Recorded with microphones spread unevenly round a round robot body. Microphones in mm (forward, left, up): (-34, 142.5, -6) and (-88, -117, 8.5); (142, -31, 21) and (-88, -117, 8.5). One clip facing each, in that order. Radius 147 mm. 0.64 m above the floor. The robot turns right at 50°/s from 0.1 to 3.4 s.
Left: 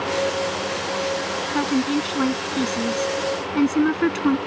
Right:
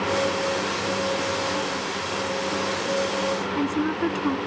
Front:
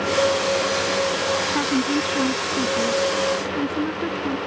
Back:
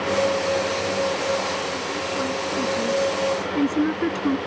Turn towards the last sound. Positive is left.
turn(degrees=135)